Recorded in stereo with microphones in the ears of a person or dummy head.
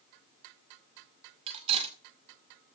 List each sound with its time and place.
1.5 s cutlery clinking: 30° right (ahead or behind), 2 m